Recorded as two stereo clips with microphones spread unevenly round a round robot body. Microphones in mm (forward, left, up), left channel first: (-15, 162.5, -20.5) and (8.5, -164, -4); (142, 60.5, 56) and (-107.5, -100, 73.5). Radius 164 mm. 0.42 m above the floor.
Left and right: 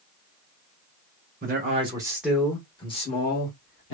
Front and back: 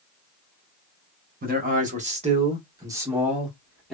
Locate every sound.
1.4 s a man speaking: 125° right, 1.2 m; by 4.0 s 115° left, 1.5 m